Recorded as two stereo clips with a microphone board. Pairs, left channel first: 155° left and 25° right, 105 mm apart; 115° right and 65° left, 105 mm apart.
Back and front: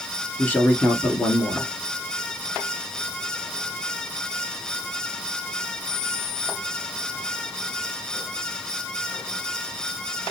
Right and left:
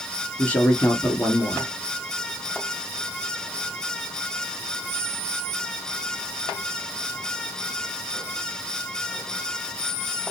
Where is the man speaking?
165° right, 1.4 m.